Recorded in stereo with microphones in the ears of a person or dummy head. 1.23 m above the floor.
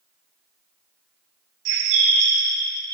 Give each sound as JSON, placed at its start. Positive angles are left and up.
{"t": 1.6, "sound": "a bird", "side_deg": -60, "distance_m": 0.9}